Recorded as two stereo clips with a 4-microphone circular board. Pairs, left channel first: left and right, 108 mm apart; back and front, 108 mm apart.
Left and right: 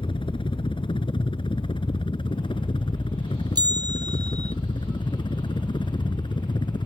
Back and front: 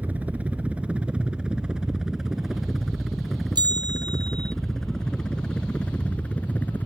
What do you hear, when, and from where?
0.0 s a helicopter: 75° left; by 6.9 s 110° left
3.5 s a bell: 45° right